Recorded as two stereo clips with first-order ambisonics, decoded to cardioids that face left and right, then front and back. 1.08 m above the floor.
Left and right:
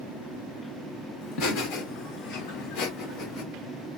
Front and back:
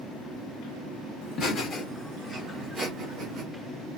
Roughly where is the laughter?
Ahead left.